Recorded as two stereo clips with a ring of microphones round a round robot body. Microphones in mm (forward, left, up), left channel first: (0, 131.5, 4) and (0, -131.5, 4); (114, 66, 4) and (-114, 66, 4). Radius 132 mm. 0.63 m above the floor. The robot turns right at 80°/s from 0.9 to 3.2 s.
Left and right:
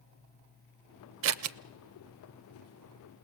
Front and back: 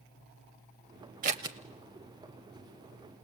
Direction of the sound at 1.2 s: 125° right.